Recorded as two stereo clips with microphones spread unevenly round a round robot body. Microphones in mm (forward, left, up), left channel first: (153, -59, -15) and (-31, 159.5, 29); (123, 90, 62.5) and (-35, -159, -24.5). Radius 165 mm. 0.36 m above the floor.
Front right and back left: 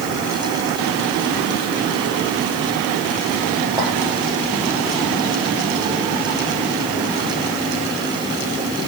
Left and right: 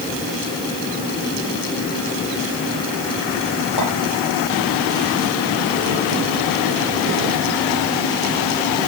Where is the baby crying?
I don't hear a baby crying.